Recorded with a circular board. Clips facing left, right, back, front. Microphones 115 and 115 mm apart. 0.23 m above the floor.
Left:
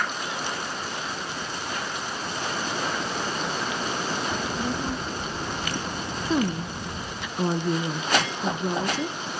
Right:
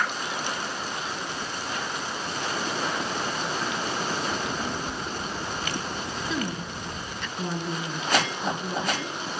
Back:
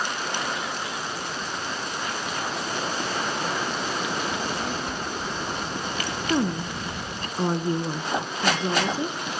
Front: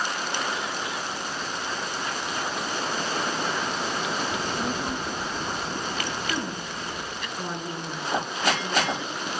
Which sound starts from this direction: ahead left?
A child speaking, at 4.3 s.